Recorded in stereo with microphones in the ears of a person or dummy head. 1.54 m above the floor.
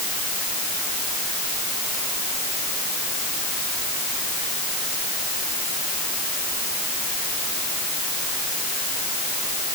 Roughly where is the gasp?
I don't hear a gasp.